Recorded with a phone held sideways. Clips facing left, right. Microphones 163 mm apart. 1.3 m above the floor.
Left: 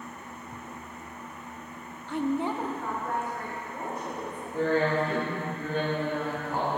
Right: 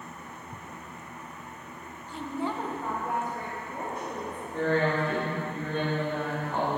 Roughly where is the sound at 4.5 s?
Centre.